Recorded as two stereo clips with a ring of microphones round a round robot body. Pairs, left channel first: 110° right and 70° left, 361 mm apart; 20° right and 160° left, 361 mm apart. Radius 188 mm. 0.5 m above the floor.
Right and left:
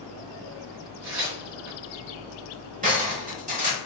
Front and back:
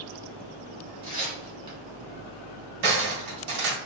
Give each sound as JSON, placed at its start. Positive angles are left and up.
{"t": 1.0, "sound": "tearing paper", "azimuth_deg": 85, "distance_m": 1.6}
{"t": 2.8, "sound": "cutlery clinking", "azimuth_deg": 135, "distance_m": 1.6}